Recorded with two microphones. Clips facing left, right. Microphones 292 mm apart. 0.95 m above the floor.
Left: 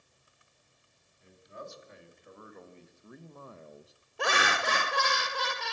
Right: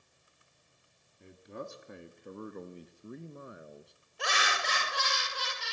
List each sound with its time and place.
1.2 s a man speaking: 70° right (ahead or behind), 3 m; by 3.9 s 5° left (ahead or behind), 1.2 m
4.2 s laughter: 65° left (ahead or behind), 1.1 m